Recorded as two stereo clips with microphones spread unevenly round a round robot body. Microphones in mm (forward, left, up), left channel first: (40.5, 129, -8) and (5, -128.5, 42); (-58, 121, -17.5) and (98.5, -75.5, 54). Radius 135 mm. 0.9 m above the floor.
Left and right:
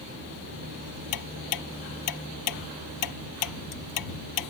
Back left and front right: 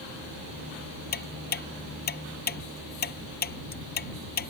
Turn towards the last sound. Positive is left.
turn(degrees=75)